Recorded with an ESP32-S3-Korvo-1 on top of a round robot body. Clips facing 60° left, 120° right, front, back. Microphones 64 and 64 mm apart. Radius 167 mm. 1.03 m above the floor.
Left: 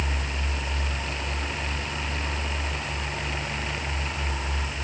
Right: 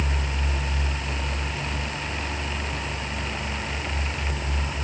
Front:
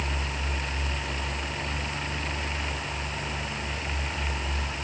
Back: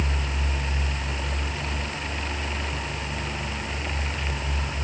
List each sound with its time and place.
Only background noise.